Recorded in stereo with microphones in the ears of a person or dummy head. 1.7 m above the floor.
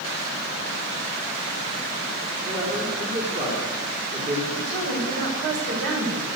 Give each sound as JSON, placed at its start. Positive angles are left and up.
{"t": 2.4, "sound": "a man speaking", "side_deg": -35, "distance_m": 5.0}
{"t": 4.5, "sound": "a woman speaking", "side_deg": -50, "distance_m": 5.5}